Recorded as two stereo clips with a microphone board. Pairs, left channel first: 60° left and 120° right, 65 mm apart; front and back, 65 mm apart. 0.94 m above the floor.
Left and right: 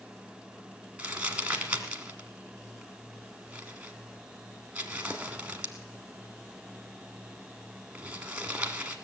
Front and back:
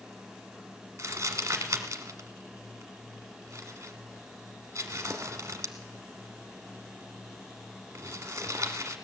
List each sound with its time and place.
1.0 s crumpling: 175° left, 1.3 m